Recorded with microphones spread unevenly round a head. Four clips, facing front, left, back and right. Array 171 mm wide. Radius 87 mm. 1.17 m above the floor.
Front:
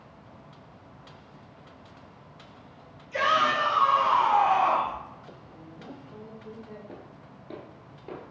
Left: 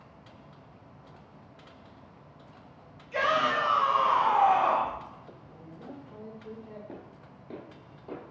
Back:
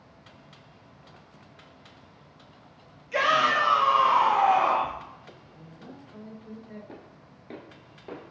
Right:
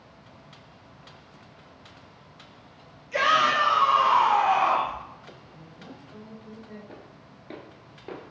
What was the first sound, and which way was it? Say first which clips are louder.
A shout: right 4 dB, back 1 dB; 150° right.